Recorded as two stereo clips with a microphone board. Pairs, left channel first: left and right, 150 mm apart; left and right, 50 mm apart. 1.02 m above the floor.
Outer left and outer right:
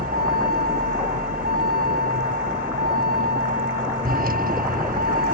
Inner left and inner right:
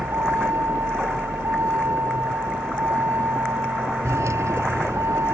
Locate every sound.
0.0 s a vehicle: 75° right (ahead or behind)